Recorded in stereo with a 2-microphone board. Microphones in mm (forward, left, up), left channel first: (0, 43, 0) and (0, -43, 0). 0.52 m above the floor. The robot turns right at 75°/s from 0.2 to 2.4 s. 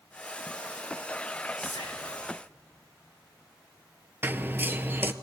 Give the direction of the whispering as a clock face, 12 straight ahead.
10 o'clock.